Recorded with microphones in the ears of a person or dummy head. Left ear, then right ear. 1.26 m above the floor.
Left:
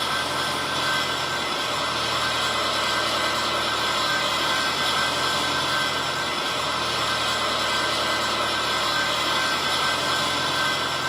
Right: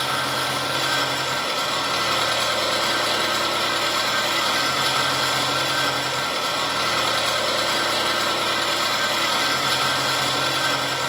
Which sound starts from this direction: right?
An engine running, at 0.0 s.